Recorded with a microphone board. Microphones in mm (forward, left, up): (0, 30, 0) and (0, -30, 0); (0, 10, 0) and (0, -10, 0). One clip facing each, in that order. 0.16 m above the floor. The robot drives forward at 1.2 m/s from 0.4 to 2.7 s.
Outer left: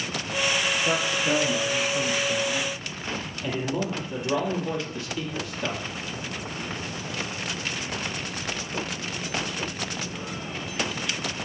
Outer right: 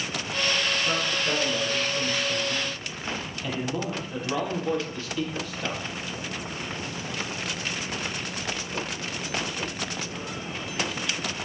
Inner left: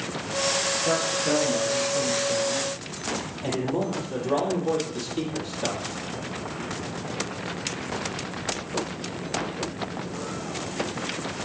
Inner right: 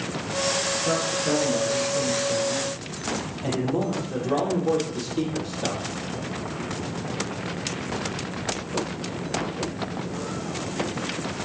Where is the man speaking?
20° left (ahead or behind), 3.5 m; by 5.8 s 10° left (ahead or behind), 5.5 m.